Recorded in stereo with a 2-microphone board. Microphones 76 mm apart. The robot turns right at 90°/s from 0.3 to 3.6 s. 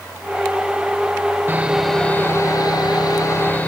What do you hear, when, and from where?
1.5 s sawing: 35° right, 1.0 m; by 3.7 s 160° left, 1.0 m